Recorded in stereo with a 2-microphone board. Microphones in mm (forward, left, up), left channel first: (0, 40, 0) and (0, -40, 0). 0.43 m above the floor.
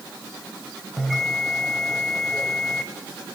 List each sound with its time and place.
1.0 s a bell: 5° left (ahead or behind), 1.2 m